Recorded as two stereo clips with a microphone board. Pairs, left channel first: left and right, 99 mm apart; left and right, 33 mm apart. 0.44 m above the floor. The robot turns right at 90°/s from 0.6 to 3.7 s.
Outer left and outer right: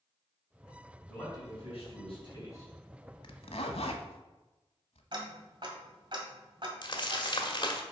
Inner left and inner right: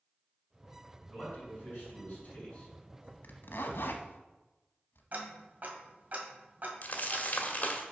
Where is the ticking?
50° right (ahead or behind), 1.6 m.